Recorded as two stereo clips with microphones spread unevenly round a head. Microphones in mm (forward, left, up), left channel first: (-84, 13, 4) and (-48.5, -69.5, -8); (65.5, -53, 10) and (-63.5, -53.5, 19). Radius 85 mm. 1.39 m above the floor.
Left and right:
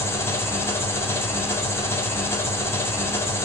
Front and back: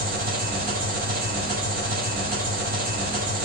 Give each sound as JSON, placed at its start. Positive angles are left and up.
{"t": 0.0, "sound": "an engine running", "azimuth_deg": 175, "distance_m": 3.0}